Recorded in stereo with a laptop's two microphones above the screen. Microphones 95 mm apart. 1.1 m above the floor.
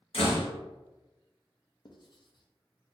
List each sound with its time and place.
0.1 s a door slam: 70° left (ahead or behind), 1.0 m
1.9 s writing: 50° left (ahead or behind), 0.6 m